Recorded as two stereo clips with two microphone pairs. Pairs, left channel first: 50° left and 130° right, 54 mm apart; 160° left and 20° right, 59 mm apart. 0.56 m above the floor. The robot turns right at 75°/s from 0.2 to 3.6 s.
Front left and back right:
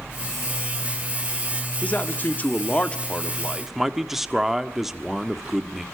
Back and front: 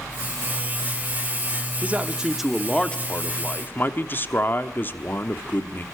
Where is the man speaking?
20° left, 1.2 m; by 5.8 s 150° left, 1.2 m.